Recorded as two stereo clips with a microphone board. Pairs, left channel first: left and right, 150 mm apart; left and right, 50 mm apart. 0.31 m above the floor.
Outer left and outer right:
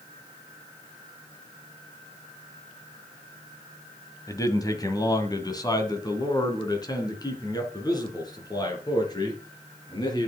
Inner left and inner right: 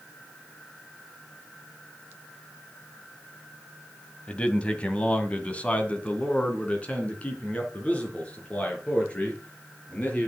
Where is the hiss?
No hiss in this recording.